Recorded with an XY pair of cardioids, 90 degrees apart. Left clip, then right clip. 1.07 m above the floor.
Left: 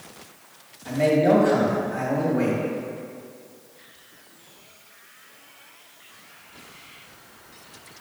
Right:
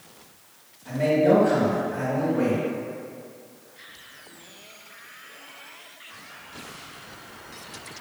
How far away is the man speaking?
About 1.7 m.